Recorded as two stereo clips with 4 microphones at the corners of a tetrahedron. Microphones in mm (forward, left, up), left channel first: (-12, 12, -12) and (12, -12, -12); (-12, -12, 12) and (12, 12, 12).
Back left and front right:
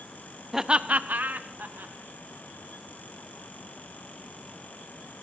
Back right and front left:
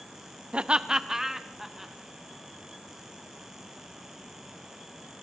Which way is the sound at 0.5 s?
35° left.